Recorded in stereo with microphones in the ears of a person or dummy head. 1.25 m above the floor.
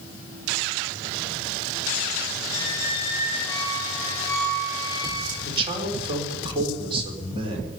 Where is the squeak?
15° left (ahead or behind), 4 m.